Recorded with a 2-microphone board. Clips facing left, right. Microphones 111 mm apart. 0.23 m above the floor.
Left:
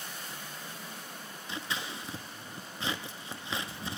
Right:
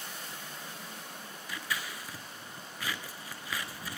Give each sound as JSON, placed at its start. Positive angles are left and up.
{"t": 1.5, "sound": "scissors", "side_deg": 25, "distance_m": 0.6}